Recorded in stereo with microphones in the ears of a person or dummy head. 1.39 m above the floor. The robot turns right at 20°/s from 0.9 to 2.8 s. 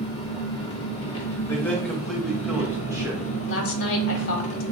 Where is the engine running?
40° left, 0.9 m; by 4.7 s 80° left, 0.9 m.